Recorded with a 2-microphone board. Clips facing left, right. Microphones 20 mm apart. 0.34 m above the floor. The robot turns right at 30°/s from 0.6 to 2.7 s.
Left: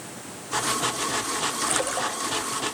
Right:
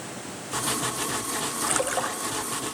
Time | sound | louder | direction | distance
1.6 | a splash | right 3 dB | 5° left (ahead or behind) | 0.6 m